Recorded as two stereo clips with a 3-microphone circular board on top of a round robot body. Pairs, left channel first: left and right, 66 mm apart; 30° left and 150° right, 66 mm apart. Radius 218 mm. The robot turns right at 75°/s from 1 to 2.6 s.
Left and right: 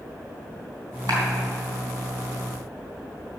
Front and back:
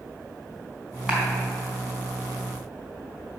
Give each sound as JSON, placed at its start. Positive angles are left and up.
{"t": 1.1, "sound": "a clap", "azimuth_deg": -75, "distance_m": 3.5}